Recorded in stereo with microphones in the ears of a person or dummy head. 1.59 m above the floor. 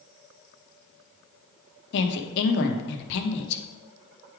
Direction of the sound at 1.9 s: 65° left (ahead or behind).